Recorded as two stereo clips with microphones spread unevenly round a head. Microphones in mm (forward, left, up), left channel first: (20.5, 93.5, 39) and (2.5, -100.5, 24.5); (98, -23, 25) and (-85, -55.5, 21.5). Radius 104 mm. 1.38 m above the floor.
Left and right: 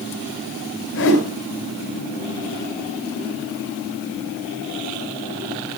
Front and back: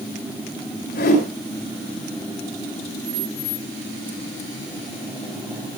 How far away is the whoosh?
About 10 m.